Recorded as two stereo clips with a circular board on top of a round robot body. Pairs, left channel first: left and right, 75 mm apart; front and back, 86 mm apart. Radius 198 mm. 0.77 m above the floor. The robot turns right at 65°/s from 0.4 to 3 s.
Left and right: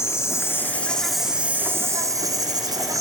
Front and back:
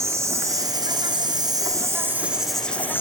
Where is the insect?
130° left, 0.7 m; by 3.0 s 60° right, 0.7 m.